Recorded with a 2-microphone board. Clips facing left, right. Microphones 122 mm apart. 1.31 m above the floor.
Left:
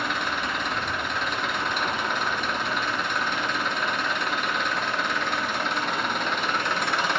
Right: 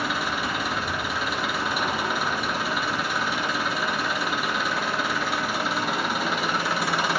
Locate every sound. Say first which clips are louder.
0.0 s an engine running: right 1 dB; 5° right (ahead or behind), 0.9 m